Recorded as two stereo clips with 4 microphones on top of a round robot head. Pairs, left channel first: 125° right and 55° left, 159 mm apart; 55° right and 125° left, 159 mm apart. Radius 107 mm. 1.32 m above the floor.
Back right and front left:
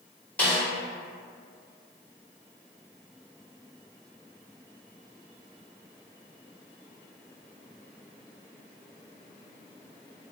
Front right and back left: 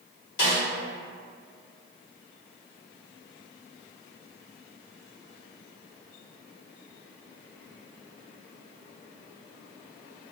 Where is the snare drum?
45° right, 1.3 m.